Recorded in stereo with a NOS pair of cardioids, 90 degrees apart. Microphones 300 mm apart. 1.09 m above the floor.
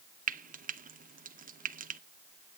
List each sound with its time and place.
0.3 s frying: 25° right, 0.6 m